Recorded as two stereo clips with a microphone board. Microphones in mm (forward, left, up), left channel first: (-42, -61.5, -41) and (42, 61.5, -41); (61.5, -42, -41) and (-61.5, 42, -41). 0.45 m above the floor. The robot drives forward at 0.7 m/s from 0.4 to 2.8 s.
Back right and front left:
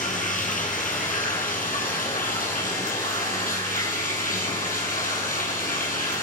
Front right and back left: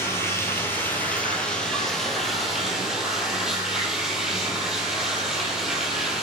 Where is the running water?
105° right, 3.5 m; by 6.2 s 130° right, 4.5 m.